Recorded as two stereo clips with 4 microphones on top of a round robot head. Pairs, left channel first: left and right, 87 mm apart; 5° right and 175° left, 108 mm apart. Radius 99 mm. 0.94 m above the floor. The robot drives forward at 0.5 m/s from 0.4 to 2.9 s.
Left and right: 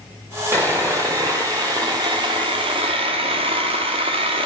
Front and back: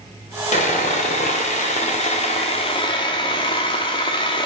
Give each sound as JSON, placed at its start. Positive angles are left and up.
{"t": 0.5, "sound": "sawing", "azimuth_deg": -20, "distance_m": 1.8}